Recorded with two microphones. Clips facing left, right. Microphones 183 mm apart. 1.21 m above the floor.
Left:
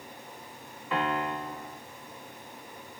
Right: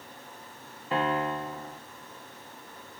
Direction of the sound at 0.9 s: 35° right (ahead or behind).